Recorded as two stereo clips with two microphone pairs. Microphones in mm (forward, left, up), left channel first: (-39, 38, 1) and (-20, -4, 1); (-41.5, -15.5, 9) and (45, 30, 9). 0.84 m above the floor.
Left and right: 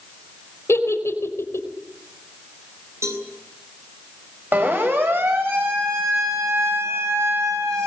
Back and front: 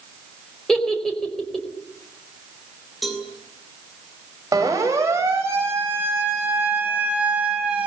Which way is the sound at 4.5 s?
25° right.